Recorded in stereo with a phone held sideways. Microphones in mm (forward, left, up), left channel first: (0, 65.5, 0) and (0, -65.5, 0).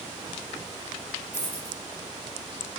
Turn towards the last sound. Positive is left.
turn(degrees=-70)  # may be behind; listen again after turning